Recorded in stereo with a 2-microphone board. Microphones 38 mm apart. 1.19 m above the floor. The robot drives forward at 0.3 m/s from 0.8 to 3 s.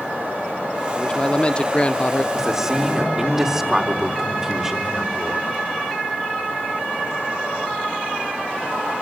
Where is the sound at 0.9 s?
25° left (ahead or behind), 0.8 m; by 2.2 s 40° left (ahead or behind), 0.5 m.